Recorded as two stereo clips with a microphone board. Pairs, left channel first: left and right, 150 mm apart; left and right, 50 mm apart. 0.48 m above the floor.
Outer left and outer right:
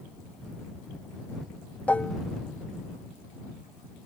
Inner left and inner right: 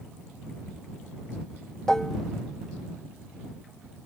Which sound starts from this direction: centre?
Dishes clattering, at 1.9 s.